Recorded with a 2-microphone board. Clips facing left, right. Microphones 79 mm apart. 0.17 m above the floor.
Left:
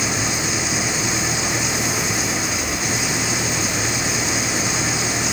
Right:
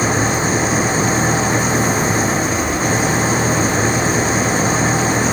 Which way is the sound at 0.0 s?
40° right (ahead or behind).